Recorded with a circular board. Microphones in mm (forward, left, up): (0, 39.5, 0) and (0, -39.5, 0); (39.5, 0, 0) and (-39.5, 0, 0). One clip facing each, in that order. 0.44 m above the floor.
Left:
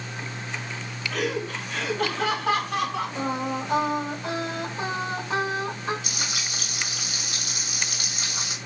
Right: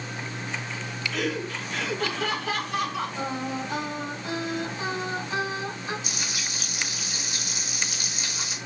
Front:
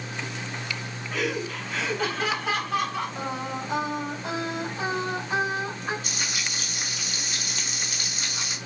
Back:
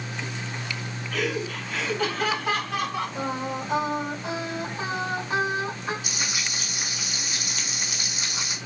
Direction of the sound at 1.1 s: 75° left.